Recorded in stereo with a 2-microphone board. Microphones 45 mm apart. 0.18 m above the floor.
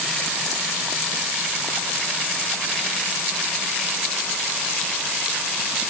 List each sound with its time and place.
Only background noise.